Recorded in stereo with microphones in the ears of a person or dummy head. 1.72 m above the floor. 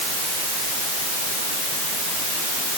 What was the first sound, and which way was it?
Only background noise.